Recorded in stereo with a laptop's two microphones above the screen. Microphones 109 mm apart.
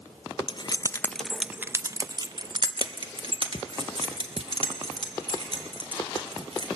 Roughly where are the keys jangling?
Left.